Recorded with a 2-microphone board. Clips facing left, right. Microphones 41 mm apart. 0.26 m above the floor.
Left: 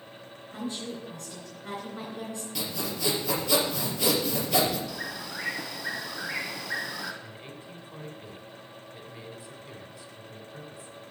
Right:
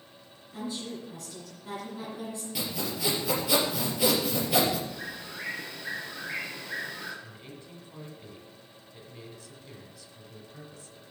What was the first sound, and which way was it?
A woman speaking, 40° left (ahead or behind).